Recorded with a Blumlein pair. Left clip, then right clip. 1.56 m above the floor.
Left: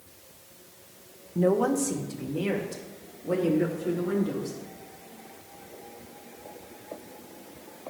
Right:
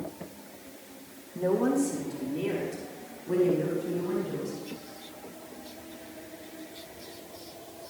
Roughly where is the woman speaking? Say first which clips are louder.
Left 2 dB; ahead.